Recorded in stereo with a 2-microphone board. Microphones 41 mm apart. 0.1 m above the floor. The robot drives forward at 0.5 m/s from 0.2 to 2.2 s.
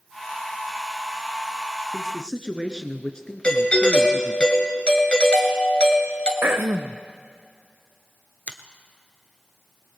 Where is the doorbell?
30° left (ahead or behind), 2.5 m.